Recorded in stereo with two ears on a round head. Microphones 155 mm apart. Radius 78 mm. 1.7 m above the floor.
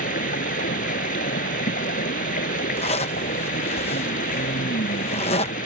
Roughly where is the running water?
Left.